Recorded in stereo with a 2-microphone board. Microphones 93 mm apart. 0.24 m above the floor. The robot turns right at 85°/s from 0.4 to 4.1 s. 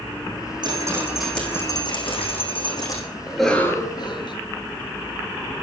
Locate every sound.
0.6 s dripping: 50° right, 6.5 m; by 3.0 s 150° left, 6.5 m
3.3 s a cough: 10° right, 4 m; by 4.3 s 60° left, 4 m